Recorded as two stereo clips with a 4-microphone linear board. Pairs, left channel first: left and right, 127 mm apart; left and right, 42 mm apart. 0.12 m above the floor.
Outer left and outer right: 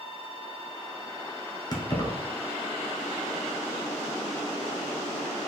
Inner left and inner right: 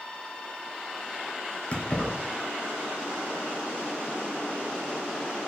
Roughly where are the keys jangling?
Left.